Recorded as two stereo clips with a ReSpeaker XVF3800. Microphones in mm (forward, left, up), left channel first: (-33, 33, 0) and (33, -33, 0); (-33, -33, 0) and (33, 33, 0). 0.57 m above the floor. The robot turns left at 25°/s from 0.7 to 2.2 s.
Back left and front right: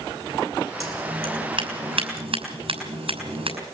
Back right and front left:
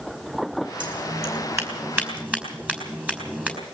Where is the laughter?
I don't hear laughter.